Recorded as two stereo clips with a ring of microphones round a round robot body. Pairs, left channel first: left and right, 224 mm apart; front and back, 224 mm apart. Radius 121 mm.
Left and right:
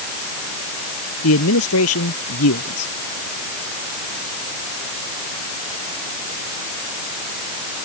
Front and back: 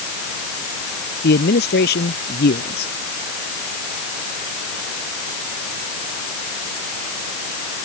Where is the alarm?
No alarm in this recording.